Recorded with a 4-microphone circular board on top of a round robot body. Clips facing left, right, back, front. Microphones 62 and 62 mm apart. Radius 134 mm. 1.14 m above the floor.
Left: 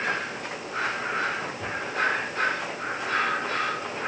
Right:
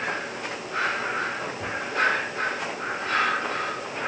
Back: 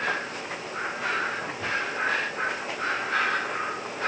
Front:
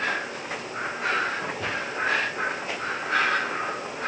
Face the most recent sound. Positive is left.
No sound to turn to.